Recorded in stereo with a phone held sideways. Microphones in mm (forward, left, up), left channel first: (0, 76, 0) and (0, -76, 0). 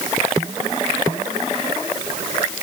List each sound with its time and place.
Only background noise.